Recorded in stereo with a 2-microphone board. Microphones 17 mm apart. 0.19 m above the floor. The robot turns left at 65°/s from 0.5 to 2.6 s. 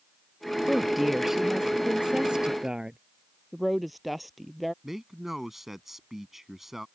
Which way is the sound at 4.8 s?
15° right (ahead or behind).